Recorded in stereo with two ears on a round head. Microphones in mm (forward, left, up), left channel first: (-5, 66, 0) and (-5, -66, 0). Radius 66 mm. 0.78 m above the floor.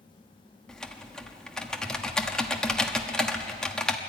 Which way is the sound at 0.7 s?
5° left (ahead or behind).